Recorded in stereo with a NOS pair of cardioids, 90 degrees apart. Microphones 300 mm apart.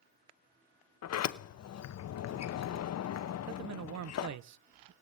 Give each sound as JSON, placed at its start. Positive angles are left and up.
{"t": 1.0, "sound": "a sliding door", "azimuth_deg": 55, "distance_m": 1.0}
{"t": 3.5, "sound": "a man speaking", "azimuth_deg": -60, "distance_m": 0.9}